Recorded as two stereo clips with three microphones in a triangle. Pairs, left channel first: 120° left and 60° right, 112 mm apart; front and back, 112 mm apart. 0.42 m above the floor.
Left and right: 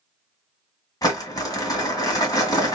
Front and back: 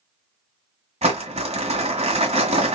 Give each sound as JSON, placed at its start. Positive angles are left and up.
{"t": 1.0, "sound": "crumpling", "azimuth_deg": 175, "distance_m": 1.8}